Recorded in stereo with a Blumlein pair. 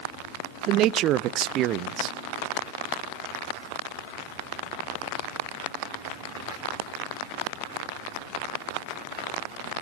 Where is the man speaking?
35° right, 0.5 m.